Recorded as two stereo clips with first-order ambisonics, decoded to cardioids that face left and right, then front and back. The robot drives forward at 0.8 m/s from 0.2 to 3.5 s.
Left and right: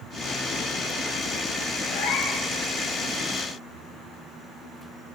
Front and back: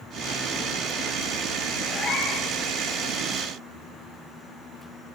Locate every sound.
1.9 s a cat meowing: 55° left, 9 m; by 2.5 s 60° left, 8.5 m